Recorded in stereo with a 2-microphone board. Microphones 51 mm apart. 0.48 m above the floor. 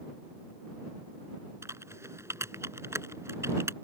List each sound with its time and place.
1.6 s typing on a keyboard: 65° right (ahead or behind)